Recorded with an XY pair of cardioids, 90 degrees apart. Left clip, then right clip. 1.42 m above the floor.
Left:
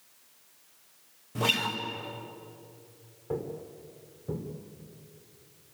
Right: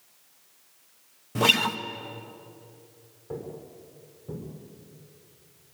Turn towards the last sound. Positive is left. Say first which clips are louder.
# left 3 dB
turn(degrees=30)